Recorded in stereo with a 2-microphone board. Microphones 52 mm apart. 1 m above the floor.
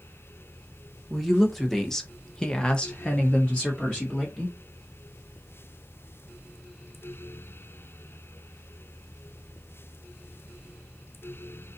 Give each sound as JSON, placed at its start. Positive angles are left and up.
{"t": 1.1, "sound": "a woman speaking", "side_deg": 0, "distance_m": 1.2}